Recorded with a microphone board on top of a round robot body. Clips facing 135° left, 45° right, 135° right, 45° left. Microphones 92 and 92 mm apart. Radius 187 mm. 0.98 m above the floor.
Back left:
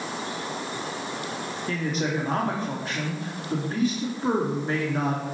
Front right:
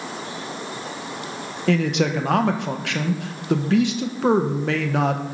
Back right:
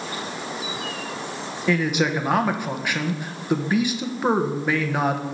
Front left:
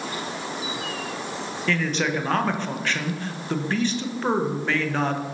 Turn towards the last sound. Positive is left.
turn(degrees=-55)